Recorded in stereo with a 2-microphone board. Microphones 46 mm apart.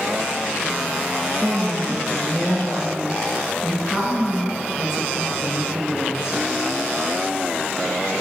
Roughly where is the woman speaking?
Centre.